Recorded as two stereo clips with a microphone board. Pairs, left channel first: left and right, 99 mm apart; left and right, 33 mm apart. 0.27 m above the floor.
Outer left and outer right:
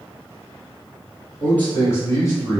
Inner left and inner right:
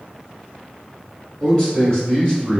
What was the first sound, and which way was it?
A man speaking, 15° left (ahead or behind).